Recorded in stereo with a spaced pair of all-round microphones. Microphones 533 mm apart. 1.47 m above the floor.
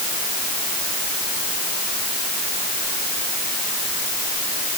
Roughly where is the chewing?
I don't hear chewing.